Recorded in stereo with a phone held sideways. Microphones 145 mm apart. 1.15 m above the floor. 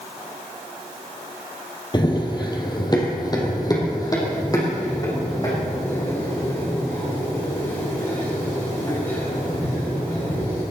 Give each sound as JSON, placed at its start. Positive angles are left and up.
{"t": 1.9, "sound": "running footsteps", "side_deg": 30, "distance_m": 2.0}